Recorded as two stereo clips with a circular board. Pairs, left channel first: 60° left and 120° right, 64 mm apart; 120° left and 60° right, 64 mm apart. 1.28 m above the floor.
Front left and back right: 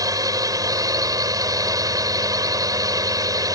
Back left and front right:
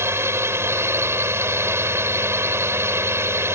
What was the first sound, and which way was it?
A drone, 105° right.